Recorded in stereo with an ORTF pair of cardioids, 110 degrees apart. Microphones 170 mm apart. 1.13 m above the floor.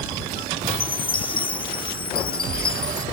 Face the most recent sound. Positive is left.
turn(degrees=30)